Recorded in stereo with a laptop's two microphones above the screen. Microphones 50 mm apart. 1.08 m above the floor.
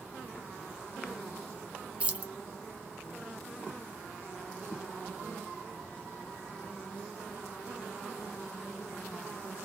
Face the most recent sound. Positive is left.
turn(degrees=-25)  # may be behind; listen again after turning